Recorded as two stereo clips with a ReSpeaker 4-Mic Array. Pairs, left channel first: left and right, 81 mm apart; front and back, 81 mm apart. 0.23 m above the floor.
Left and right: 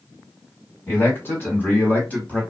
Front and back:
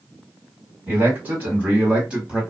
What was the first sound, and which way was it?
A man speaking, 130° left.